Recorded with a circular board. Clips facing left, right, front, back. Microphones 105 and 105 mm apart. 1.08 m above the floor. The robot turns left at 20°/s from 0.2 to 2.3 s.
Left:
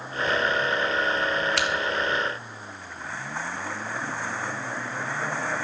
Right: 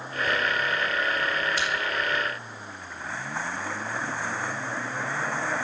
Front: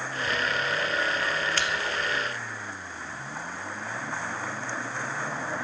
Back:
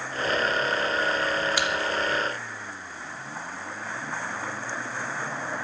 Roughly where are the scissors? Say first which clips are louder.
Left 3 dB, back 3 dB; left.